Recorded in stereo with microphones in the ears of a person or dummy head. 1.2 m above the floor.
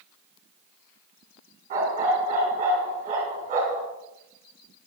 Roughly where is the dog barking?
Right.